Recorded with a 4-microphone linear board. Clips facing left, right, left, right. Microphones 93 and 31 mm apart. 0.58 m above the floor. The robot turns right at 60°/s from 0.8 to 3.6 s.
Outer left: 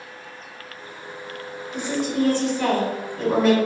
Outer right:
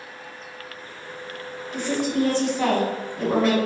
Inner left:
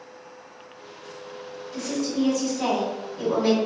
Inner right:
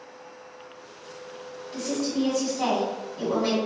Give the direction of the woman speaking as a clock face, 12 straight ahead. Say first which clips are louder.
Outer right 1 dB, inner left 1 dB; 3 o'clock.